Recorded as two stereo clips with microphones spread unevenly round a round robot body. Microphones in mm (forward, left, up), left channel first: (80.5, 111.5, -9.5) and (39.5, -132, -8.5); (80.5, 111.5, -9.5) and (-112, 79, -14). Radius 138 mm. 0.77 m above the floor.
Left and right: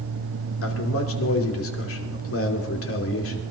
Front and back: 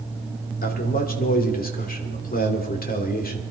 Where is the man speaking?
50° left, 2.5 m.